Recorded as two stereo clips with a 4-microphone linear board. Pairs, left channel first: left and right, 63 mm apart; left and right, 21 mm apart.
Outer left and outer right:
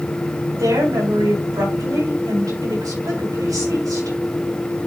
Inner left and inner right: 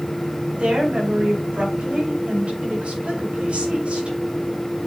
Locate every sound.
0.6 s a woman speaking: 70° right (ahead or behind), 5 m